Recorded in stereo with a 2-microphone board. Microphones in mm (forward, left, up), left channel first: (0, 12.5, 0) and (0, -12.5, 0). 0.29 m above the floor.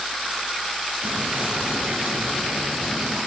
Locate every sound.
1.0 s whispering: 75° right (ahead or behind), 5 m